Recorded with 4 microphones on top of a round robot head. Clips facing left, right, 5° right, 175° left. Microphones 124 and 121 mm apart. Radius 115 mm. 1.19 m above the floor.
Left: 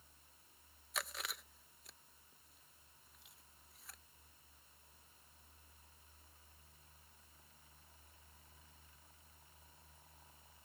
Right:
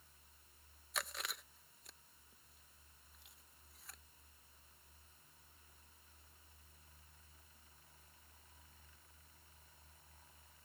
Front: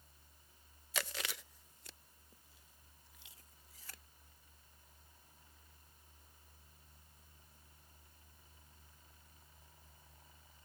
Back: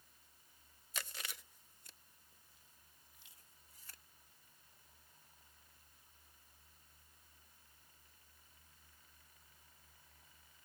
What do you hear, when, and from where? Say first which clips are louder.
0.9 s chewing: even, front 7 dB; straight ahead